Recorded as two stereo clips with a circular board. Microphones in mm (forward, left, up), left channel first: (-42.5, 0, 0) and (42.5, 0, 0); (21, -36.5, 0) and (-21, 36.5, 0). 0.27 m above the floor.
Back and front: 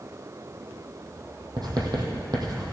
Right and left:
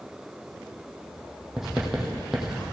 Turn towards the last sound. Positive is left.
turn(degrees=35)